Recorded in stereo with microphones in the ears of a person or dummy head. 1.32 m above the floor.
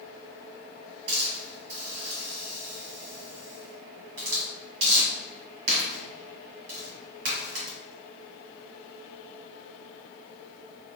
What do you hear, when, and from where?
1.1 s a hiss: 70° right (ahead or behind), 1.3 m